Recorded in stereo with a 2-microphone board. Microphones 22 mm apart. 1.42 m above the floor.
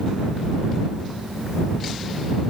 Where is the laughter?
I don't hear laughter.